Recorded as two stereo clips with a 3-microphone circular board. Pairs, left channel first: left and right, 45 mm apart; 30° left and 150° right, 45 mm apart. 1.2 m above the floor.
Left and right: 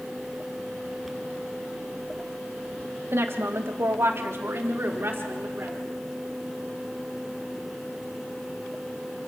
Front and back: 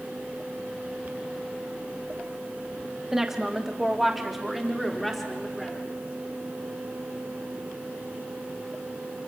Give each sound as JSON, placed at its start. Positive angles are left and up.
{"t": 3.1, "sound": "a woman speaking", "azimuth_deg": -70, "distance_m": 2.5}